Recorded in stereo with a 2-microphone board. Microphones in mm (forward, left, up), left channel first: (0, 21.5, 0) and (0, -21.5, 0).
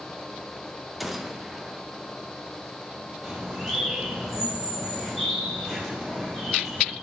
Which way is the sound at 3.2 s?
5° right (ahead or behind).